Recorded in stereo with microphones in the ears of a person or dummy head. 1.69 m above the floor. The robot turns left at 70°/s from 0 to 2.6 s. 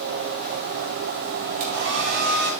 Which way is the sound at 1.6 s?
55° right.